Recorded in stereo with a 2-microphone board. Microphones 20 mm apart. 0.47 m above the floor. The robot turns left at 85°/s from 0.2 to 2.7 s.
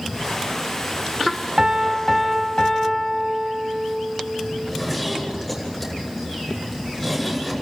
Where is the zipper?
10° left (ahead or behind), 7 m.